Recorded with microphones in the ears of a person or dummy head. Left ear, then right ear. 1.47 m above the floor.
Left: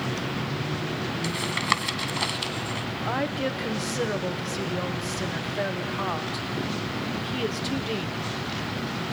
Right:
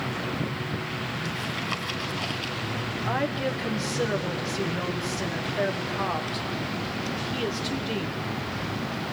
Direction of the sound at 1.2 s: 55° left (ahead or behind).